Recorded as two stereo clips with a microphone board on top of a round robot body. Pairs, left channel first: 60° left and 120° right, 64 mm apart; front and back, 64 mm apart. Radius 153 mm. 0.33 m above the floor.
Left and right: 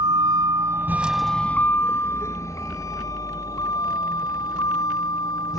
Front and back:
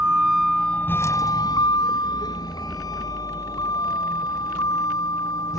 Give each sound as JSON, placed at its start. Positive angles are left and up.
{"t": 0.0, "sound": "a vehicle", "azimuth_deg": -105}